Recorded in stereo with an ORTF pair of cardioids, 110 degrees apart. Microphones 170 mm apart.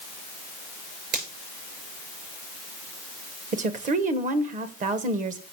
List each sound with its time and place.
1.1 s a finger snap: 60° right, 7 m
3.5 s a woman speaking: 50° right, 1.4 m